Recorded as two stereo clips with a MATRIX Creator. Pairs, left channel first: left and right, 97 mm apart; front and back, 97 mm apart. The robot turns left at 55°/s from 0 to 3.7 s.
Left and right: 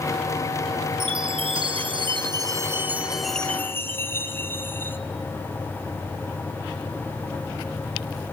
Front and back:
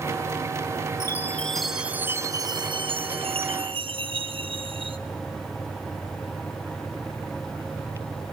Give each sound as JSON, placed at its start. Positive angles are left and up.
{"t": 1.0, "sound": "a chime", "azimuth_deg": -55, "distance_m": 0.8}